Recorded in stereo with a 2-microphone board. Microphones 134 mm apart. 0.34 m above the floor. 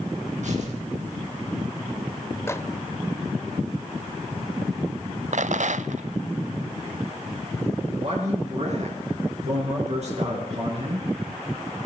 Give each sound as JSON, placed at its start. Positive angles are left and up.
{"t": 0.4, "sound": "tearing paper", "side_deg": -65, "distance_m": 4.0}
{"t": 2.5, "sound": "a microwave", "side_deg": 20, "distance_m": 0.8}
{"t": 5.3, "sound": "a rattle", "side_deg": -65, "distance_m": 0.5}
{"t": 8.0, "sound": "a man speaking", "side_deg": -55, "distance_m": 5.0}